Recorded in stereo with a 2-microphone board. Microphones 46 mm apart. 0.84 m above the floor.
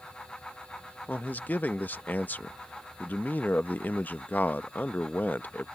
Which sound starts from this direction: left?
A man speaking, at 1.1 s.